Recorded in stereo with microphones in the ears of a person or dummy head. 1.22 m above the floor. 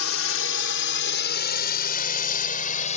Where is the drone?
85° left; by 3.0 s 45° left (ahead or behind).